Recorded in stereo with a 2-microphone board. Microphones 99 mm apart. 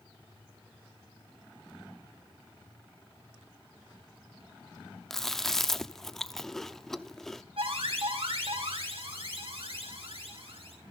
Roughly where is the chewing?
Centre.